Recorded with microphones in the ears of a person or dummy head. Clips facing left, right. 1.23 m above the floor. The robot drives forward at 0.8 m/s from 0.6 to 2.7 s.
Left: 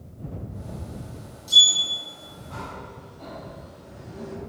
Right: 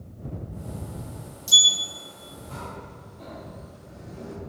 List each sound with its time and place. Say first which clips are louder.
1.5 s a sliding door: left 1 dB; 60° right (ahead or behind), 0.5 m; by 4.3 s 20° right (ahead or behind), 1.3 m